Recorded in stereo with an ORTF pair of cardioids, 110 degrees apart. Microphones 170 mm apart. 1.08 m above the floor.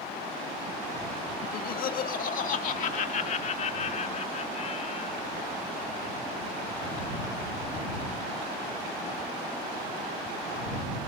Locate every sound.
1.4 s laughter: 60° left; by 5.3 s 40° left